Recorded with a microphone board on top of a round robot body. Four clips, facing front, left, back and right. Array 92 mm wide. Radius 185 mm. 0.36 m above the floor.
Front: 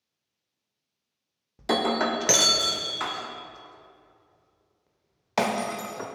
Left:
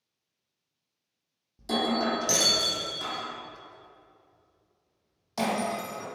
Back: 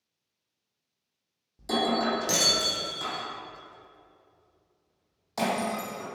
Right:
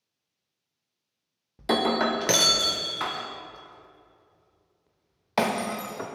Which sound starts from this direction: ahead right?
Breaking glass, at 1.6 s.